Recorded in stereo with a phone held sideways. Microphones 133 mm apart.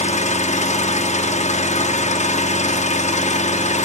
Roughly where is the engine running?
Left.